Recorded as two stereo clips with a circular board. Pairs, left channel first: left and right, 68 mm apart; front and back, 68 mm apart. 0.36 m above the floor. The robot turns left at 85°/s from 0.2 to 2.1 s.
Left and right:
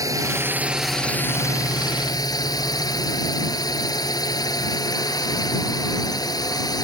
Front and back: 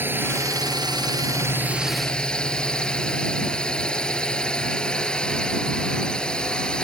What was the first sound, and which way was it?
A drone, 120° right.